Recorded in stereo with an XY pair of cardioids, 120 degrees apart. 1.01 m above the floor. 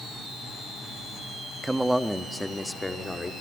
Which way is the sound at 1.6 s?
15° right.